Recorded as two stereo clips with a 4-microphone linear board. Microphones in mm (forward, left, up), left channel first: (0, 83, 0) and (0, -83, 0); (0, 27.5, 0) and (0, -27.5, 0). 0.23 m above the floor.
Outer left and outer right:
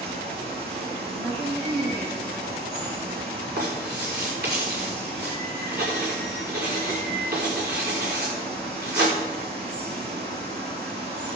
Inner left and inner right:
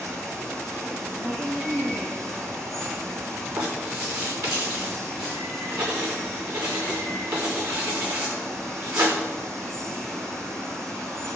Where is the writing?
75° right (ahead or behind), 4.5 m.